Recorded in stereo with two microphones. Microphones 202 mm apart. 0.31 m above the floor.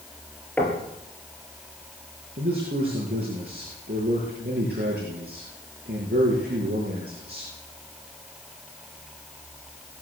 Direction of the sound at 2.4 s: 50° right (ahead or behind).